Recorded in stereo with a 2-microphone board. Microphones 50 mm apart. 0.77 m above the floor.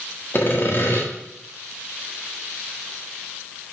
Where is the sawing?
50° left (ahead or behind), 1.6 m.